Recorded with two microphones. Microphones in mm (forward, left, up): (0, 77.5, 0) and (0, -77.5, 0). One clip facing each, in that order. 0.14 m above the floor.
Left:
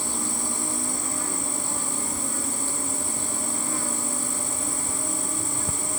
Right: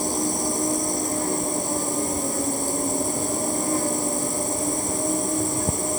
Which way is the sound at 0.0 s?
40° right (ahead or behind).